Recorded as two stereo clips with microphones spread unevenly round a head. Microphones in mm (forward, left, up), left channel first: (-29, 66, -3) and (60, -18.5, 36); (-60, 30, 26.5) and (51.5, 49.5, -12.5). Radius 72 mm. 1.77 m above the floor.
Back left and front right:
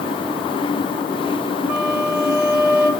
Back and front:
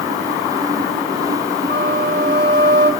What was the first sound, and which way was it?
A flute, 115° right.